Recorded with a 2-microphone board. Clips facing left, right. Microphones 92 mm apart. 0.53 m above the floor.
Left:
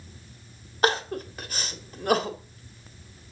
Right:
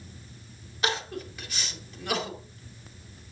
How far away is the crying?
About 1.5 m.